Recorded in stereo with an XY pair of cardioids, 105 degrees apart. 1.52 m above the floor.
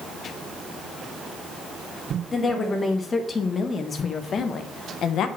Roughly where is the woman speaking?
Ahead left.